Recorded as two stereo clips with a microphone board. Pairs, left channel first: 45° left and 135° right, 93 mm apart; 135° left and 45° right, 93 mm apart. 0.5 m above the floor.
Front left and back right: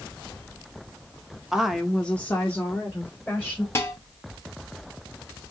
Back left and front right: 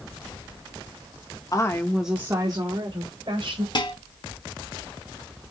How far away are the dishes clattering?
About 1.5 m.